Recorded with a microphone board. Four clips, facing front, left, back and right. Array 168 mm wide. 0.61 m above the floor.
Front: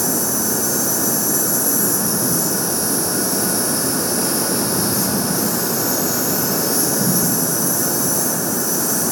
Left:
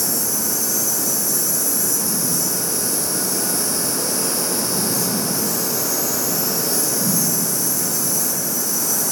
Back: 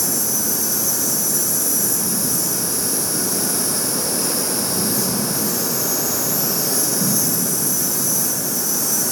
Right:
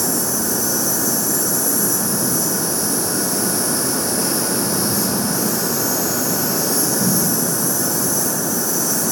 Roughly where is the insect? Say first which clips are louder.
Right 5 dB, front 5 dB; ahead.